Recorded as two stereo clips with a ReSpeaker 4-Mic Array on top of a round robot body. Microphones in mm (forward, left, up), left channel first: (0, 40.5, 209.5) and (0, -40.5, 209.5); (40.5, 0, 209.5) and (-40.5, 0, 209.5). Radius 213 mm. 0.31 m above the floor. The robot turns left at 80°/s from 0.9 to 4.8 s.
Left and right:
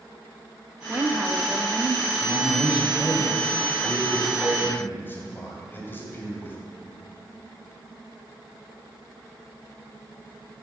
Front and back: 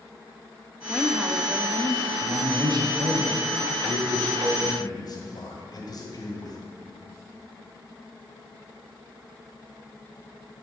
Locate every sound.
0.9 s a woman speaking: 65° right, 1.0 m; by 2.1 s 160° right, 1.0 m
2.2 s a man speaking: 125° right, 1.9 m; by 6.6 s 25° left, 1.9 m